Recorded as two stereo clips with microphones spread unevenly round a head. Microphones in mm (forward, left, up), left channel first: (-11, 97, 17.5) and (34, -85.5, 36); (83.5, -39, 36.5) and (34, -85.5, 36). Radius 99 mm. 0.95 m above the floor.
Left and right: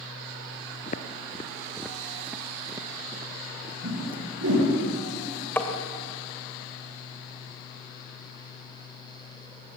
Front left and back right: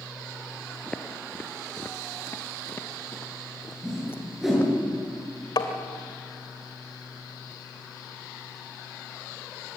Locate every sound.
0.9 s footsteps: 120° left, 1.0 m; by 4.7 s 15° right, 3.5 m
3.8 s a whoosh: 50° right, 9.5 m
5.6 s tapping: 20° left, 2.5 m